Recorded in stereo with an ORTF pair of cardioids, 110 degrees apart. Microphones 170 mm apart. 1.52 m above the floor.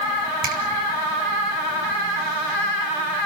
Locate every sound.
0.4 s a finger snap: 60° right, 7.5 m